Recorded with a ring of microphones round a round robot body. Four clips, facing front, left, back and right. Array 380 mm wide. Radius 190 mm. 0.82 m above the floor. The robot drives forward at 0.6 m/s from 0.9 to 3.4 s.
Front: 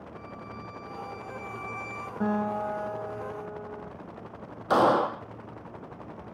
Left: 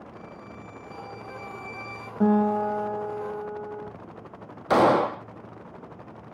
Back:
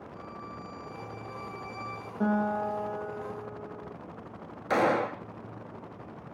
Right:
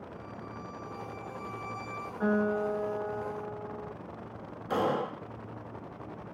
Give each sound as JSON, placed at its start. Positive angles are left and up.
{"t": 0.1, "sound": "a violin", "azimuth_deg": 10, "distance_m": 3.0}
{"t": 2.2, "sound": "a guitar", "azimuth_deg": 85, "distance_m": 8.5}
{"t": 4.7, "sound": "a gunshot", "azimuth_deg": 75, "distance_m": 0.5}